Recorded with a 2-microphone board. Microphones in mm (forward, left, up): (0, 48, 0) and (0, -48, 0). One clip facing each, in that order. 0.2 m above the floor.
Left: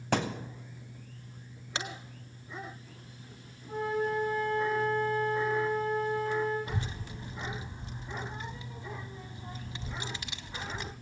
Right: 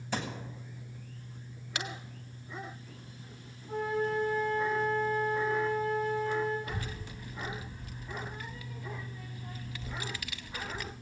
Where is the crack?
30° left (ahead or behind), 1.2 m.